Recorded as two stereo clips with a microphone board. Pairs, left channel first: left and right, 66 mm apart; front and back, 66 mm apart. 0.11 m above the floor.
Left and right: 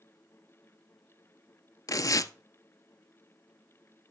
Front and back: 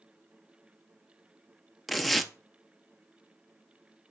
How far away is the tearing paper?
About 0.5 m.